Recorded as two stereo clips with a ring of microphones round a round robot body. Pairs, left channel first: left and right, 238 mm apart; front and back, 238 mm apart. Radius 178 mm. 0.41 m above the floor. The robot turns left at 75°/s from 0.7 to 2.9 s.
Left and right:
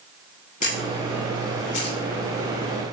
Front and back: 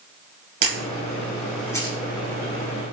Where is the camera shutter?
155° left, 5.5 m; by 2.0 s 65° left, 5.5 m.